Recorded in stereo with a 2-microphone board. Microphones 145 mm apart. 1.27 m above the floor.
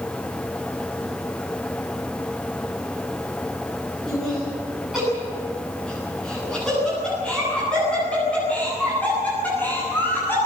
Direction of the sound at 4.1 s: 5° right (ahead or behind).